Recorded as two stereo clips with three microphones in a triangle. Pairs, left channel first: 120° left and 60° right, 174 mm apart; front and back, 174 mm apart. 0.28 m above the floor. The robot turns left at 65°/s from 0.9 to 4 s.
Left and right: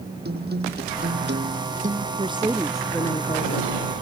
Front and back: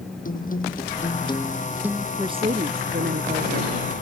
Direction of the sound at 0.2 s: 40° right.